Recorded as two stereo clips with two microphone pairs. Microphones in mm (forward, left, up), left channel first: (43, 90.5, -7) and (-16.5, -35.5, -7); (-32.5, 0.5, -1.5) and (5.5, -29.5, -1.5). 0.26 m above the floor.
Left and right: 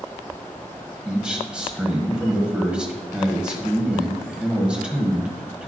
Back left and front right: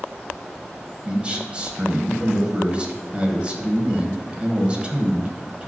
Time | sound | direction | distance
1.1 | a man speaking | 40° right | 1.2 m